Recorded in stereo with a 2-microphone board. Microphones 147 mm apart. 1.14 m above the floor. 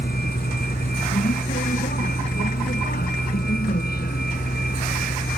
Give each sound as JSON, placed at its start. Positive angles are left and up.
{"t": 0.0, "sound": "a vehicle", "side_deg": 80}